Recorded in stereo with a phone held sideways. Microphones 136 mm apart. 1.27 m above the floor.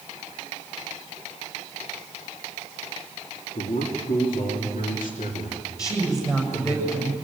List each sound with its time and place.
3.5 s a man speaking: 80° left, 2.5 m; by 6.8 s 60° left (ahead or behind), 3.5 m
5.8 s a woman speaking: 25° left (ahead or behind), 7 m